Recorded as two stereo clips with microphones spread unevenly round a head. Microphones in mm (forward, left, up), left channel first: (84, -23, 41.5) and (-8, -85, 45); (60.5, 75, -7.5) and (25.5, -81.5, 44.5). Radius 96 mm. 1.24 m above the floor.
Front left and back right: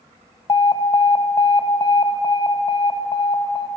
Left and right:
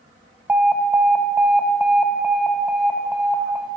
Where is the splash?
I don't hear a splash.